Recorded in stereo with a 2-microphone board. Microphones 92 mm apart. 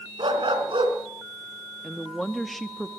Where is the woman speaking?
Centre (ahead or behind), 0.8 m.